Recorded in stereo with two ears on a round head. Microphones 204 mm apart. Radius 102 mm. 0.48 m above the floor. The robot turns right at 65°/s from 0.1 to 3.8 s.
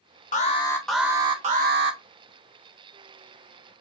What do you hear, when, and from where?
0.3 s an alarm: 140° left, 0.8 m; by 2.0 s 110° right, 0.8 m